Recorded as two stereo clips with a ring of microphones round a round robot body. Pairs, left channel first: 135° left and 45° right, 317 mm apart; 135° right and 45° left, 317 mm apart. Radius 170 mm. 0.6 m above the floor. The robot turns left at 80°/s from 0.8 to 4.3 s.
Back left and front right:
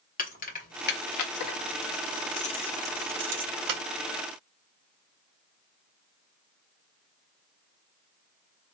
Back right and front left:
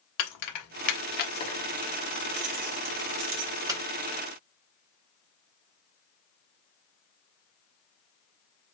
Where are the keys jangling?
160° right, 1.1 m; by 3.8 s 45° right, 1.1 m.